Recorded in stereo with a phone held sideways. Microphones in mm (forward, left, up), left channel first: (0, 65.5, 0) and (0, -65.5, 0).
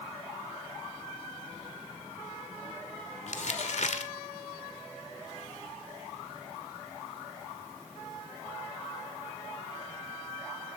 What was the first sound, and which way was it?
Crumpling, 60° left (ahead or behind).